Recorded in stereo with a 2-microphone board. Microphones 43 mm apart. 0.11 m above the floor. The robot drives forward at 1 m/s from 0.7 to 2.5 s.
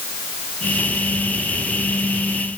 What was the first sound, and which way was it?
Only background noise.